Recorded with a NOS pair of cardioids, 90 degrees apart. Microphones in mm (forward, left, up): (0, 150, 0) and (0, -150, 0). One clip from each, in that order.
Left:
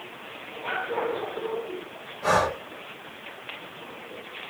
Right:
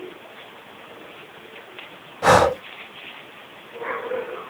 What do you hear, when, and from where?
2.2 s breathing: 70° right, 0.7 m